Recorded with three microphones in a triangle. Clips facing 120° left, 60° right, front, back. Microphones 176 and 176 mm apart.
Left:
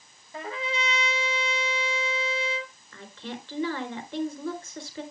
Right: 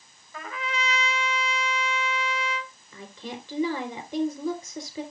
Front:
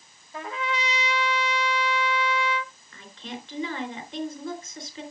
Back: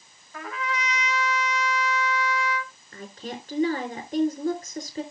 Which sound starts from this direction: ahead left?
A trumpet, at 0.3 s.